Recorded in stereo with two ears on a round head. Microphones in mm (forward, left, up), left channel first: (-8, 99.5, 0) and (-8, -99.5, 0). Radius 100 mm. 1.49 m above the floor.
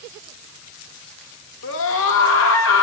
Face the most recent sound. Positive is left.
turn(degrees=65)  # may be behind; listen again after turning